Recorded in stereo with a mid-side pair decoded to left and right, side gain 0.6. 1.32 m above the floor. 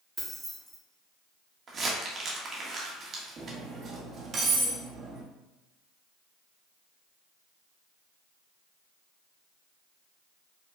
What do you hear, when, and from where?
0.2 s keys jangling: 10° right, 1.5 m
1.7 s crumpling: 40° right, 1.4 m
3.4 s cutlery clinking: 45° right, 1.3 m